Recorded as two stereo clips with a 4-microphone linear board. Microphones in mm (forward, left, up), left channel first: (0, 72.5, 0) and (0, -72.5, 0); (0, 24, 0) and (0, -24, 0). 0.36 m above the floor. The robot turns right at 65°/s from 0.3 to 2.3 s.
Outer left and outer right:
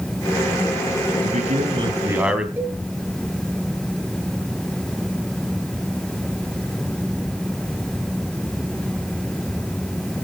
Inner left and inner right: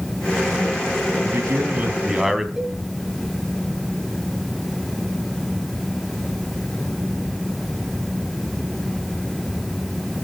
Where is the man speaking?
75° right, 2.5 m; by 2.5 s 5° right, 2.5 m.